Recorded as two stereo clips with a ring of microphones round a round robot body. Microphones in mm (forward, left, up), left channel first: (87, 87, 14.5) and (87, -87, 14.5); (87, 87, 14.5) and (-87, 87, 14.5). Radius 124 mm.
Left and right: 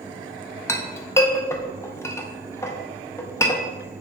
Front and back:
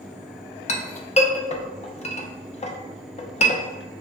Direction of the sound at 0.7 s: 25° left.